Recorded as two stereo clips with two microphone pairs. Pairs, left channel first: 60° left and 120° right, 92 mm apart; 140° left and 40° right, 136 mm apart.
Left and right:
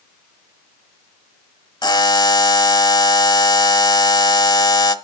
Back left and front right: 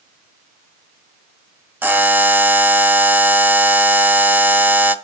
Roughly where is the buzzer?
Ahead left.